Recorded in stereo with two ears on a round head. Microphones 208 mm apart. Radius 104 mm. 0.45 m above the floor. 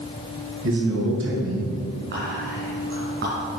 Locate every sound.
0.6 s a man speaking: 60° right (ahead or behind), 4 m
2.1 s whispering: 45° right (ahead or behind), 4 m